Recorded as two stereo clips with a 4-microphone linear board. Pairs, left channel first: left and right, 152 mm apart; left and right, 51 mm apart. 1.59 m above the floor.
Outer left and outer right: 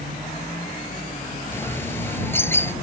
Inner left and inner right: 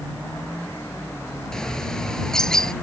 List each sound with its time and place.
1.5 s a bird: 15° left (ahead or behind)